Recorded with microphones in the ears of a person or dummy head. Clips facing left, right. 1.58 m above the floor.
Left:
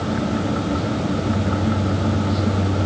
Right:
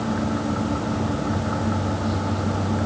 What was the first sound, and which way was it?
Only background noise.